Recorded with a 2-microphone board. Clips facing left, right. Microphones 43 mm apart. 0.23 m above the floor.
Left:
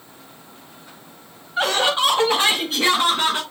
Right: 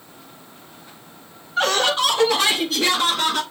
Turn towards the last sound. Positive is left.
turn(degrees=30)  # may be behind; listen again after turning